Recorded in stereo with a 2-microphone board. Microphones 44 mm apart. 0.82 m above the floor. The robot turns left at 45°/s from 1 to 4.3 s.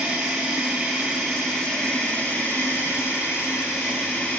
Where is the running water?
165° right, 3.5 m; by 4.4 s 45° left, 3.5 m.